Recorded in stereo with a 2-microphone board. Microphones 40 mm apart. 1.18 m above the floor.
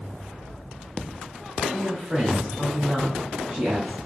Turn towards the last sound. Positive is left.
turn(degrees=-30)  # may be behind; listen again after turning